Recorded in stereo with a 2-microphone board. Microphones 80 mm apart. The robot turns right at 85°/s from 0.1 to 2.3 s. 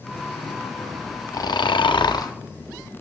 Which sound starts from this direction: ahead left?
Snoring, at 1.3 s.